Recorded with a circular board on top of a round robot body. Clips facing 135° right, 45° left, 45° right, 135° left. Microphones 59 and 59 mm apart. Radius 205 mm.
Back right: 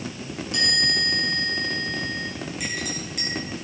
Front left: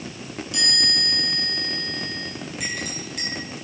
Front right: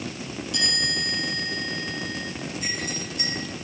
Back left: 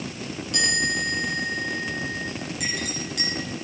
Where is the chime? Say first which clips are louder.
Back right 2 dB, back left 4 dB; 175° left, 9 m.